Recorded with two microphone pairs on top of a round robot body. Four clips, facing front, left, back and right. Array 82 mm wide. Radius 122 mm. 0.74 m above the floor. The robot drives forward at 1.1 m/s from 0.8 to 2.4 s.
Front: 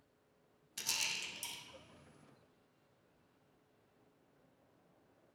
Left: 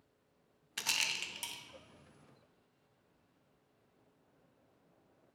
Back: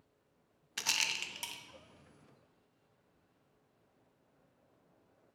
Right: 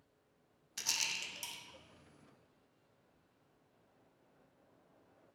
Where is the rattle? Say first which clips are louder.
Left 4 dB, back 6 dB; 150° left, 0.9 m; by 1.6 s 165° left, 1.6 m.